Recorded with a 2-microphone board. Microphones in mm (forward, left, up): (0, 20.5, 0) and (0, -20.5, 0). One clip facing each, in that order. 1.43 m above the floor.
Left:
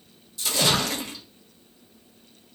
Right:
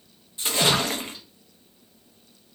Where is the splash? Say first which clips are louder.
Right 1 dB; 30° right (ahead or behind), 0.6 m.